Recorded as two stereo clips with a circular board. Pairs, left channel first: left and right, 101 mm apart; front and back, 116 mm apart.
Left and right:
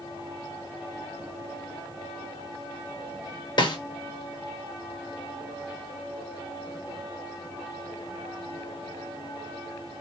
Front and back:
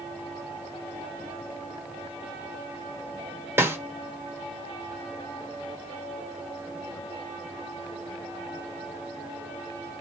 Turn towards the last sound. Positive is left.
turn(degrees=115)